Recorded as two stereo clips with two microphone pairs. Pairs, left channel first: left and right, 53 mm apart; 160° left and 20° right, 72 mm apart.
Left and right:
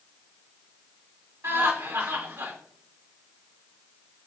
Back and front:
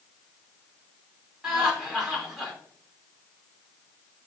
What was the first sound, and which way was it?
Laughter, 105° right.